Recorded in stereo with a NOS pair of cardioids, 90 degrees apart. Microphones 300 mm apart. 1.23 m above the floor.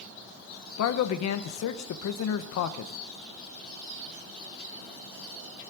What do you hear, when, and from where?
0.8 s a man speaking: 70° left, 1.1 m